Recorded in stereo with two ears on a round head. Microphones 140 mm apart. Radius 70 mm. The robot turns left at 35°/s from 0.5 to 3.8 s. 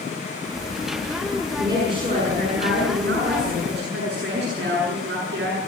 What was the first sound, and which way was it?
A woman speaking, 20° right.